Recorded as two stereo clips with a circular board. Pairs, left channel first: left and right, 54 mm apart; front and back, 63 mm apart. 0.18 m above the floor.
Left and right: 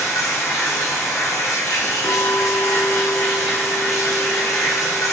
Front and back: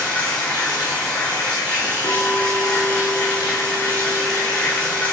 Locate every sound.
0.0 s running water: 70° left, 3 m
2.0 s a clink: 15° left, 1.5 m